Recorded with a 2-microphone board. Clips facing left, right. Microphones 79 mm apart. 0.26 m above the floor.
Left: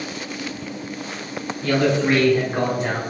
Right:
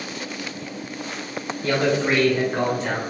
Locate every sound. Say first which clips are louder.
1.6 s a man speaking: left 2 dB; 25° right (ahead or behind), 1.1 m; by 3.0 s 25° left (ahead or behind), 1.1 m